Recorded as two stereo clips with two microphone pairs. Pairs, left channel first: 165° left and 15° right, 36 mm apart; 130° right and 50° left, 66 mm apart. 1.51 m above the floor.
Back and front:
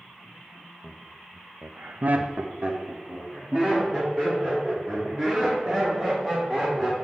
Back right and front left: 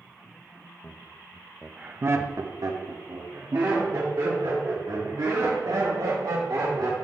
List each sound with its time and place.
0.8 s laughter: 90° right, 0.7 m; by 6.9 s 55° left, 3.5 m